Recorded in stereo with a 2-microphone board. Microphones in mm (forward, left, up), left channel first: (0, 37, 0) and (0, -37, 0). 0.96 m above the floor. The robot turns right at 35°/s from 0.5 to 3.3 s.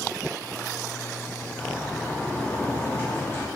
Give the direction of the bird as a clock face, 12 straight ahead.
12 o'clock.